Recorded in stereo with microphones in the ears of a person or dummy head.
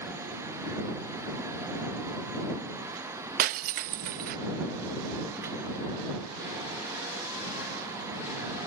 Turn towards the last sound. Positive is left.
turn(degrees=-55)  # may be behind; listen again after turning